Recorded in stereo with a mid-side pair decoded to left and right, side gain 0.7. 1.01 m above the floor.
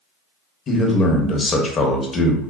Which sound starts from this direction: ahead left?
A man speaking, at 0.7 s.